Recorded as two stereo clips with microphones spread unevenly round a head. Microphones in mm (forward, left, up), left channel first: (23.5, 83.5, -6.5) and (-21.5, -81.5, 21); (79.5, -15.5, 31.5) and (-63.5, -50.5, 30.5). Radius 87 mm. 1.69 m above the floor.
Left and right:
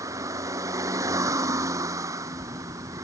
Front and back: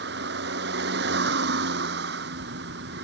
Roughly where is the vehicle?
Behind.